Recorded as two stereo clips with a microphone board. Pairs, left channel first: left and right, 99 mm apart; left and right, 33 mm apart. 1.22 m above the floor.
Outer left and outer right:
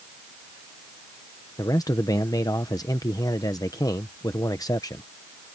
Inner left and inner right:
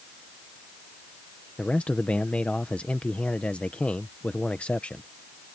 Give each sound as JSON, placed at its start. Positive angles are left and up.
{"t": 1.6, "sound": "a man speaking", "side_deg": 35}